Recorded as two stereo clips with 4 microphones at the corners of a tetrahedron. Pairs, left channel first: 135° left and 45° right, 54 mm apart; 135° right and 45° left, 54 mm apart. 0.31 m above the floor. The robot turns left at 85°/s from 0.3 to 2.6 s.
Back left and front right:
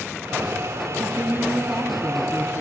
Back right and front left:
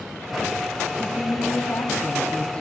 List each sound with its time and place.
1.0 s a woman speaking: 70° right, 2.5 m; by 2.6 s 155° left, 2.5 m